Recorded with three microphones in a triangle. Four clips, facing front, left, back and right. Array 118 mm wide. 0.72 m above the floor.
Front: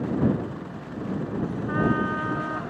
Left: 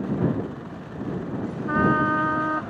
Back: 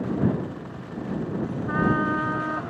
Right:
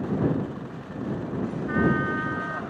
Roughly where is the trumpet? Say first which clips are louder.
Left 4 dB, back 1 dB; left.